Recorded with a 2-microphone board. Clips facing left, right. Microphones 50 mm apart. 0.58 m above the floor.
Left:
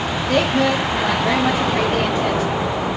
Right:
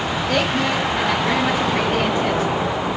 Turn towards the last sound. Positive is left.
turn(degrees=-35)  # may be behind; listen again after turning